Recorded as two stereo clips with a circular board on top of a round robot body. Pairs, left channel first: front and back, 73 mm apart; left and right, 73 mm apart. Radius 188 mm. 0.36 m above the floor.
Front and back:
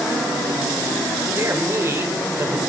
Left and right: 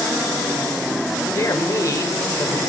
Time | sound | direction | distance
1.4 | a man speaking | 130° left | 2.5 m